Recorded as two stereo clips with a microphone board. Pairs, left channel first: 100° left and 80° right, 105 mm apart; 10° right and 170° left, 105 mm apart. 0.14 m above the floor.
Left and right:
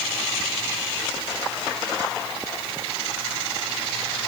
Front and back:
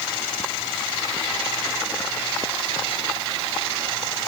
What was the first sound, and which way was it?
Only background noise.